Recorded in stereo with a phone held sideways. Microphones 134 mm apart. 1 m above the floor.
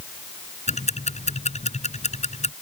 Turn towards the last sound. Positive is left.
turn(degrees=60)  # may be behind; listen again after turning